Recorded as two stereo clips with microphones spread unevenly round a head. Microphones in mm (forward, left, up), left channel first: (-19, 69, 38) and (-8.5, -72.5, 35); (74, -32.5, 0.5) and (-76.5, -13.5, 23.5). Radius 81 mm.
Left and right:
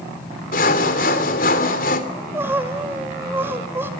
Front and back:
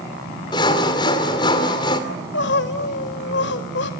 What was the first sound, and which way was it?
Sawing, 60° left.